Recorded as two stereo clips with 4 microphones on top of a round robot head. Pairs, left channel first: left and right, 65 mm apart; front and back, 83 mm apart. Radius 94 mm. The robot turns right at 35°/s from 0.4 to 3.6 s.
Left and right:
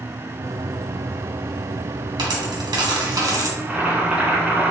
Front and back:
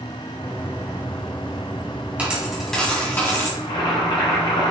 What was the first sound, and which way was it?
A dropped coin, 100° right.